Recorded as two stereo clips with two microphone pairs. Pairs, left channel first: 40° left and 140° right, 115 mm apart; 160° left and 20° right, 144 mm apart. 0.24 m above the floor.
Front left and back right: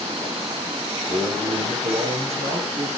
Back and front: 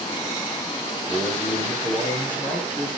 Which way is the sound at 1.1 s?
140° right.